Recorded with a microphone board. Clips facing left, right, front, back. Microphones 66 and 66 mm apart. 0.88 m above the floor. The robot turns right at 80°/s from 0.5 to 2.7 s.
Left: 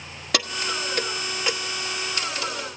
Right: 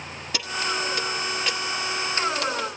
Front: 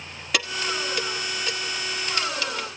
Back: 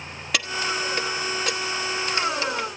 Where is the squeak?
I don't hear a squeak.